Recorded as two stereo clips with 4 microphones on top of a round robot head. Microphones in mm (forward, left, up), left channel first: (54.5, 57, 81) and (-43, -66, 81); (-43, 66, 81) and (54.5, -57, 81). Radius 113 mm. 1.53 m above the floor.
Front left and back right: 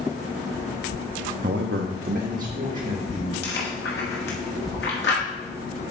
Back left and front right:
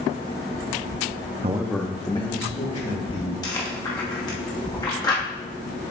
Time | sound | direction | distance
1.4 | a man speaking | 90° right | 0.5 m
3.4 | chewing | 65° left | 1.1 m